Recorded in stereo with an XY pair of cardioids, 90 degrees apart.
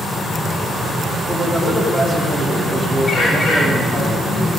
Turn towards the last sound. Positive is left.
turn(degrees=50)